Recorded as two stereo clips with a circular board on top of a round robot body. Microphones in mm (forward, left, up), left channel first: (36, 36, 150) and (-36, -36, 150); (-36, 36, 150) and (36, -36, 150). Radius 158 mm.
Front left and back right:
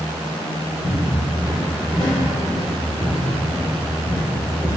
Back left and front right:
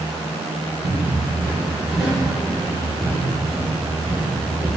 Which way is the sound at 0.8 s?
15° left.